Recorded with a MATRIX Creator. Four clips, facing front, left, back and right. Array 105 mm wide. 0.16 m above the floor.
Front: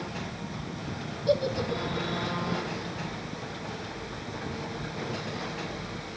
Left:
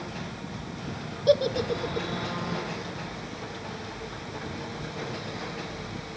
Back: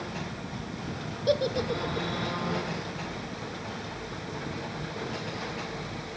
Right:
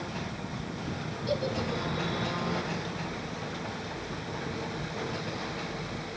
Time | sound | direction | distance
1.3 | a giggle | 115° left | 0.7 m